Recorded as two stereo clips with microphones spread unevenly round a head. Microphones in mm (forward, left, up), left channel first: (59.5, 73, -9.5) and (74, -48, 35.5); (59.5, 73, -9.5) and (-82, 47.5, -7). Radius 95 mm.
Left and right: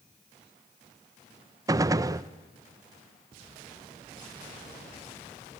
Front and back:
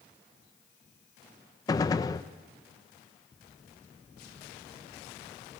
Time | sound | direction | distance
1.7 | a gunshot | 55° right | 0.6 m